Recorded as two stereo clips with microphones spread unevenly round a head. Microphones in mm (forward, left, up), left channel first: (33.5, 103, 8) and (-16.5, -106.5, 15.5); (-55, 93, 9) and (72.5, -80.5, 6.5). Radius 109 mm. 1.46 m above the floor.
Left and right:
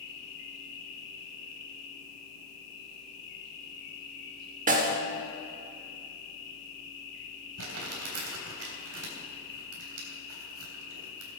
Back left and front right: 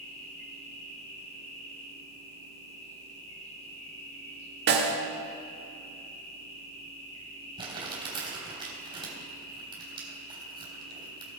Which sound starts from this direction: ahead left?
An insect, at 0.0 s.